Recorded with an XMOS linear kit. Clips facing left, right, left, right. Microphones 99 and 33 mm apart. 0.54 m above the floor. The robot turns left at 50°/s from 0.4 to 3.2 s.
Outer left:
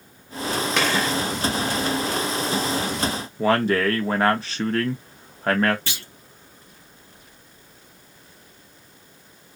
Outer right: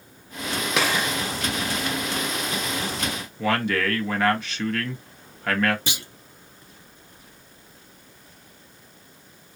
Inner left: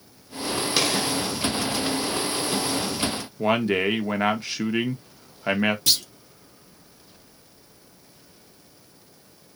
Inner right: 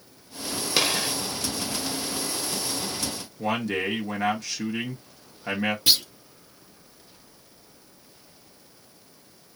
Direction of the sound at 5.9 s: 15° right (ahead or behind).